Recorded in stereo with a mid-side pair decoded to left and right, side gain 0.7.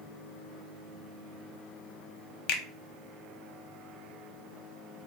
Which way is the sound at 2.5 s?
60° left.